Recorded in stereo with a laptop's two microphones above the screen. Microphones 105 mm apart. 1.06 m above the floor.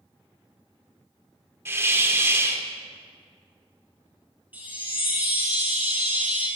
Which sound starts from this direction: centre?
A chime, at 4.5 s.